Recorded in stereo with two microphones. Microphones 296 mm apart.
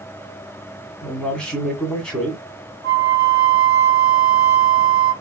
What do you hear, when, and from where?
1.0 s a man speaking: 5° left (ahead or behind), 1.5 m
2.8 s a flute: 80° left, 2 m